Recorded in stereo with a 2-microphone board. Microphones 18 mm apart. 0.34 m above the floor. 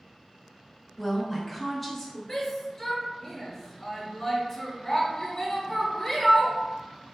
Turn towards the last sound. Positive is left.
turn(degrees=15)  # may be behind; listen again after turning